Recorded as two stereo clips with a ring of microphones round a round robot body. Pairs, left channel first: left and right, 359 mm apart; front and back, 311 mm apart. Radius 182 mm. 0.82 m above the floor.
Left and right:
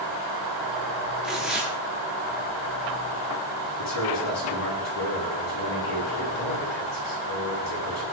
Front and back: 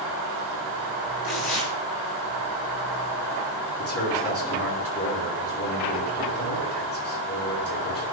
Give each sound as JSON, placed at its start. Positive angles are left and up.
{"t": 1.2, "sound": "tearing paper", "azimuth_deg": 0, "distance_m": 7.0}
{"t": 3.8, "sound": "a man speaking", "azimuth_deg": 45, "distance_m": 9.0}